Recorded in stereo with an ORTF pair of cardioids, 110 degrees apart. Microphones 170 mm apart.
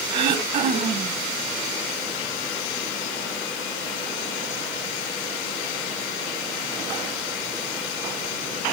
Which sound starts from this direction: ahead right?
Throat clearing, at 0.1 s.